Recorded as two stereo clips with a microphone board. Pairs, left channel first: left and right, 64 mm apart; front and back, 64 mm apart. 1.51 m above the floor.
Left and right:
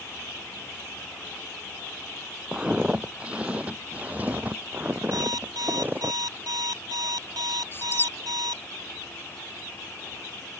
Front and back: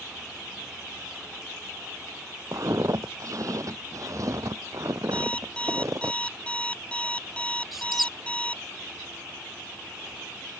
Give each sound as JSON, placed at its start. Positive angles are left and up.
{"t": 2.5, "sound": "footsteps", "azimuth_deg": -165}
{"t": 5.1, "sound": "an alarm clock", "azimuth_deg": -70}
{"t": 7.7, "sound": "a squeak", "azimuth_deg": 95}